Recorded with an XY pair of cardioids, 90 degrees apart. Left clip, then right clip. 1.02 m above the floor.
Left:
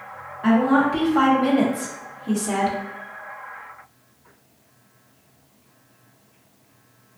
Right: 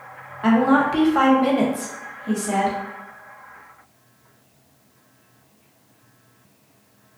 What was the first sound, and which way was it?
A woman speaking, 55° right.